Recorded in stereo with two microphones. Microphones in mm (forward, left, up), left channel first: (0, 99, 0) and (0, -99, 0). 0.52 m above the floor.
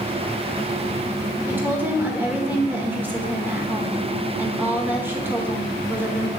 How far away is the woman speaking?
About 1.3 m.